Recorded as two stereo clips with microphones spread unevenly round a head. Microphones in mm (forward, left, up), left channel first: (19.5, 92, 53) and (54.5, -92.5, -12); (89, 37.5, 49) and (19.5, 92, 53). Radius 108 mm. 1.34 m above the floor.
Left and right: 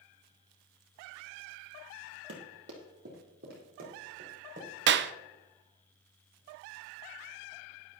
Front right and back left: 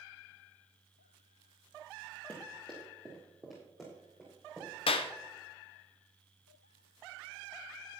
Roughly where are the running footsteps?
Behind right.